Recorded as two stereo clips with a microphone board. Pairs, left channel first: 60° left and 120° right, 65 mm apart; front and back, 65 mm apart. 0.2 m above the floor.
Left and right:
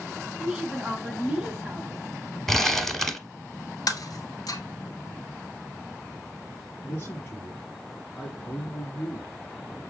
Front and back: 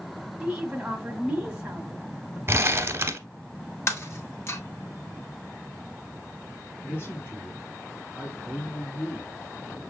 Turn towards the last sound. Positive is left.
turn(degrees=25)